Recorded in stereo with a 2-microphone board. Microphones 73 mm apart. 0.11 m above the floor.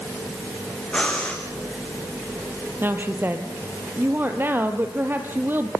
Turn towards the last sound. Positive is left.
turn(degrees=-30)  # may be behind; listen again after turning